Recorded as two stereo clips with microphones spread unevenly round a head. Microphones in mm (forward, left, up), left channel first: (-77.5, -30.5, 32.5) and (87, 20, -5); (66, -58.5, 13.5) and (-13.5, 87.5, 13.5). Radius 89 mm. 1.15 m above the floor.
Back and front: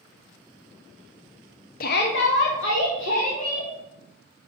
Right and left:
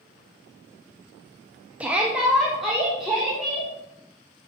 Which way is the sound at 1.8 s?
165° right.